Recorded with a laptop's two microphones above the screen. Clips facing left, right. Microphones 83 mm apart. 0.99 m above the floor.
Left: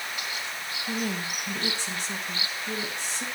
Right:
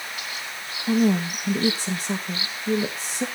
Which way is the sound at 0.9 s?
40° right (ahead or behind).